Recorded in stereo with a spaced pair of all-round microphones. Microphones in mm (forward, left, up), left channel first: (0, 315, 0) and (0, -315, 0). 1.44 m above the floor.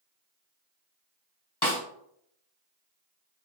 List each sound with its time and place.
1.6 s a snare drum: 40° left (ahead or behind), 1.1 m